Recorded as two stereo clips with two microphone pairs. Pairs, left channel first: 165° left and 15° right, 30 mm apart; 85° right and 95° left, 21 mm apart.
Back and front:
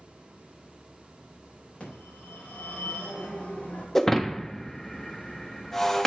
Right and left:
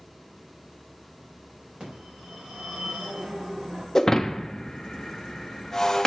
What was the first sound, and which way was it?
A phone ringing, 125° left.